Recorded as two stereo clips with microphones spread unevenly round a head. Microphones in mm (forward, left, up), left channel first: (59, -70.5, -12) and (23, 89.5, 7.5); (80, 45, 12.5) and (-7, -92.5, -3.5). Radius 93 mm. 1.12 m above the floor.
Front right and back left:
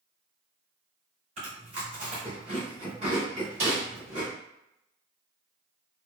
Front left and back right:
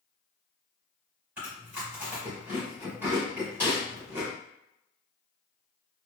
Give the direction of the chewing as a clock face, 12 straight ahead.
7 o'clock.